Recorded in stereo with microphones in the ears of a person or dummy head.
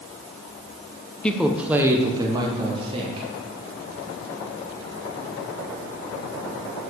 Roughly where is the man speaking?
Centre.